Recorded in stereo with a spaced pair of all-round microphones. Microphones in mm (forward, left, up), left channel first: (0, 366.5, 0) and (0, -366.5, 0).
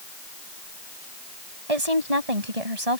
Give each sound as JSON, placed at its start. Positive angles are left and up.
{"t": 1.7, "sound": "a woman speaking", "side_deg": -50}